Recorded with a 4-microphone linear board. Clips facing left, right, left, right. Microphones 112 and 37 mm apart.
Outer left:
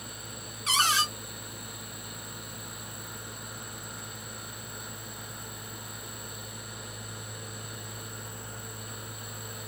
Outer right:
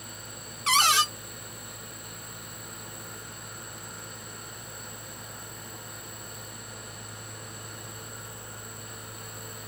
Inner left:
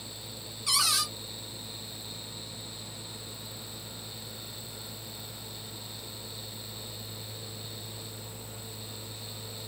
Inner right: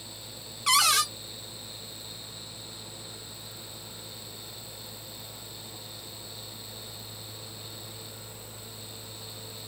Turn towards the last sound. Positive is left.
turn(degrees=-75)  # may be behind; listen again after turning